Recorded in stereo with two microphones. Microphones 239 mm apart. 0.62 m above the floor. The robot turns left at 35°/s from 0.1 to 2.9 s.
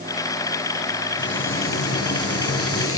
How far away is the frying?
About 2.5 m.